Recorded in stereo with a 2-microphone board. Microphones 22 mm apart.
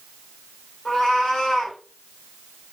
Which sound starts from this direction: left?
A cat meowing, at 0.8 s.